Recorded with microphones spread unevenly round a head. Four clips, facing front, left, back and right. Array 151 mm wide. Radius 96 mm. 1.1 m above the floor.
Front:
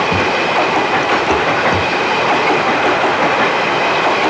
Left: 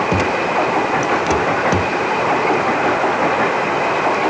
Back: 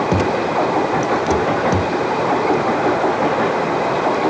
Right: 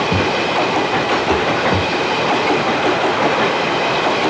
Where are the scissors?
I don't hear scissors.